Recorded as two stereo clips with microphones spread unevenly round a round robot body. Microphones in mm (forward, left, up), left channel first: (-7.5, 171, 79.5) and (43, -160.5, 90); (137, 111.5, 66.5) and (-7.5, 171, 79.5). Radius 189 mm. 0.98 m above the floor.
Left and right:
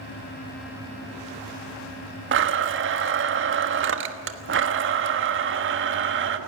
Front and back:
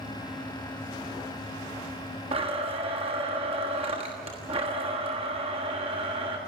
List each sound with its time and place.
2.3 s a blender: 135° right, 1.3 m